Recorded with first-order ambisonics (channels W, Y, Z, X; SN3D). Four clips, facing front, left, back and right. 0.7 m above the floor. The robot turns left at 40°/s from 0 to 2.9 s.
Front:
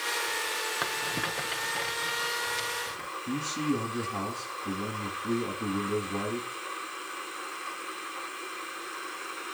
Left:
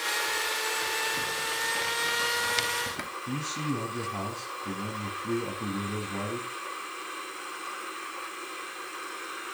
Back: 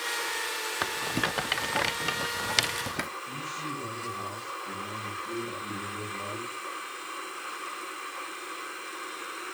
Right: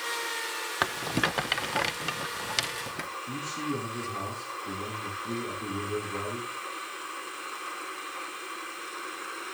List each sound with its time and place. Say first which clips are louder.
0.8 s a rattle: right 1 dB, back 1 dB; 100° right, 0.7 m; by 3.1 s 175° left, 0.7 m
3.3 s a man speaking: left 2 dB, front 5 dB; 40° left, 6.5 m